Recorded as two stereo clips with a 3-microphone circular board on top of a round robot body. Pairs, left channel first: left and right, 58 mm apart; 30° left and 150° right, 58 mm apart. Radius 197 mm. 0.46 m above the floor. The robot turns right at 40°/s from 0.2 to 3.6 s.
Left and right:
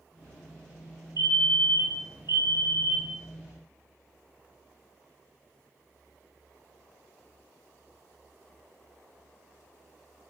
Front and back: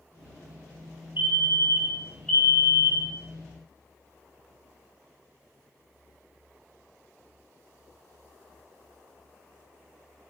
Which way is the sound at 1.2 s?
100° right.